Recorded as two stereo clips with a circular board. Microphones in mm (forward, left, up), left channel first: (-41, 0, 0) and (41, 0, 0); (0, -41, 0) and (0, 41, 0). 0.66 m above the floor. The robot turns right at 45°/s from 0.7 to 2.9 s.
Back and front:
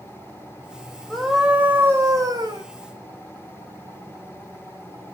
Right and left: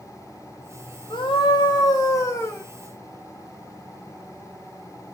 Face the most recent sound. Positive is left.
turn(degrees=-15)